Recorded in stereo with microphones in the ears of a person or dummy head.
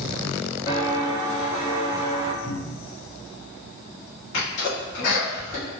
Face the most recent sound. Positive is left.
turn(degrees=50)  # may be behind; listen again after turning